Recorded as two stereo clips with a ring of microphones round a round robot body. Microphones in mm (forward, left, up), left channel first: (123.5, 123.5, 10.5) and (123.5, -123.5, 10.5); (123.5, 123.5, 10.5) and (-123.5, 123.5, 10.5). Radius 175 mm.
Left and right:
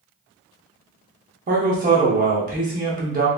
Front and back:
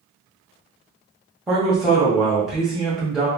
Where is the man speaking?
95° right, 0.8 m.